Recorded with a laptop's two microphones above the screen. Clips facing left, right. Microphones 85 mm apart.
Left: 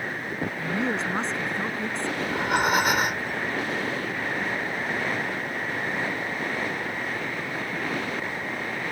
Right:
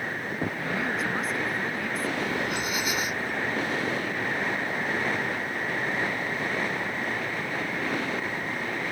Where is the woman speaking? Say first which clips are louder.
Left 4 dB; 30° left (ahead or behind).